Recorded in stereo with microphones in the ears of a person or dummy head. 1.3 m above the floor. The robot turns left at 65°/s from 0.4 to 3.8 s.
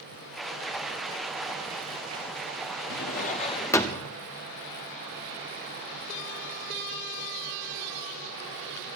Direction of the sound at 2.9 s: 70° left.